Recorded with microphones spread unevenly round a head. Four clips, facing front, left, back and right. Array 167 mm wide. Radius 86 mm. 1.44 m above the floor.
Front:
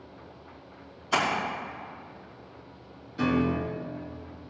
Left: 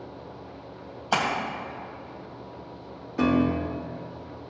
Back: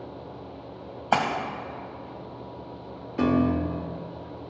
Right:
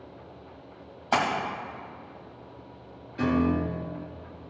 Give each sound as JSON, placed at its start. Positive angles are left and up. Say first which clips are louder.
{"t": 1.1, "sound": "a splash", "louder": "right 1 dB, back 4 dB", "azimuth_deg": 170, "distance_m": 2.0}
{"t": 3.2, "sound": "a piano", "louder": "left 2 dB, back 3 dB", "azimuth_deg": 130, "distance_m": 1.4}